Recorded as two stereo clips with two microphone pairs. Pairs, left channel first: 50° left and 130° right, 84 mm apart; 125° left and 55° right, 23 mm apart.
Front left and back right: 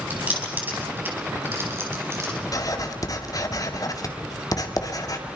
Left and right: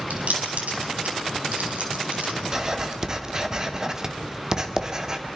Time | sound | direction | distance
0.1 | keys jangling | 55° right | 5 m
2.5 | writing | 10° left | 1.9 m